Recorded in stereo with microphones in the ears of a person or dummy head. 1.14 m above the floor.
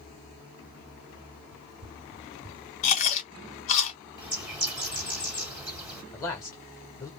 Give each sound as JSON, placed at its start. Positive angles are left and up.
{"t": 1.5, "sound": "running footsteps", "side_deg": -40, "distance_m": 1.4}
{"t": 2.8, "sound": "chewing", "side_deg": 40, "distance_m": 1.4}
{"t": 4.2, "sound": "a bird", "side_deg": -15, "distance_m": 1.5}
{"t": 6.1, "sound": "a man speaking", "side_deg": 10, "distance_m": 1.0}